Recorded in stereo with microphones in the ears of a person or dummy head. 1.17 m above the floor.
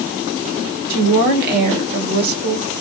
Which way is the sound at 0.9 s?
60° right (ahead or behind).